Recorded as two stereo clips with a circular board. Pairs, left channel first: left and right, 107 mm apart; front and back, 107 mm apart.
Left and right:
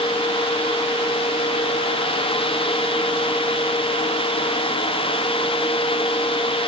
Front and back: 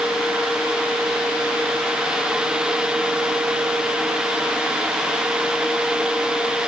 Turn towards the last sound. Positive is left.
No sound to turn to.